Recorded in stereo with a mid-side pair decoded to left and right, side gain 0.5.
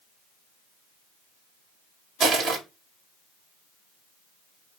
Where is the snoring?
I don't hear snoring.